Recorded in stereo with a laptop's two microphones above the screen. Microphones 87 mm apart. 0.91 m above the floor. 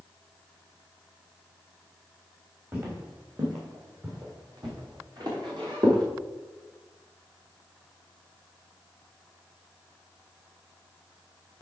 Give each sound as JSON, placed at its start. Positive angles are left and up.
{"t": 2.7, "sound": "footsteps", "side_deg": -35, "distance_m": 4.5}